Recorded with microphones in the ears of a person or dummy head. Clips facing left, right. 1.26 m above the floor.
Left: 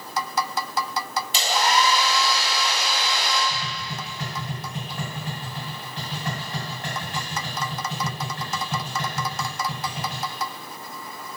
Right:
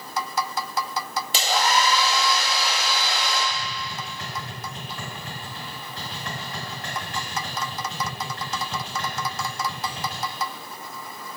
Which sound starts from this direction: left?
Tapping, at 3.5 s.